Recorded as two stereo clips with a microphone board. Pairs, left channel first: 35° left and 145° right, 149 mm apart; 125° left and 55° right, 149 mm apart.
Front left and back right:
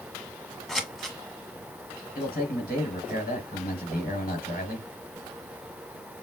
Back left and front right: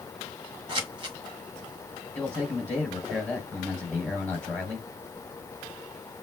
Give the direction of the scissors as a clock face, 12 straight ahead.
2 o'clock.